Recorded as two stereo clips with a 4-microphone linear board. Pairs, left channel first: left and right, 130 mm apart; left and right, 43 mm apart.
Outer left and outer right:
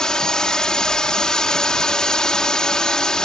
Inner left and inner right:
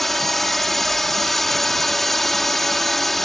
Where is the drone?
5° left (ahead or behind).